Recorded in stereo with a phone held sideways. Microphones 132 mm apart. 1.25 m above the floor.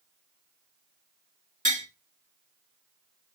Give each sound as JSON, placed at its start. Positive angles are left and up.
{"t": 1.6, "sound": "tapping", "side_deg": -75, "distance_m": 1.8}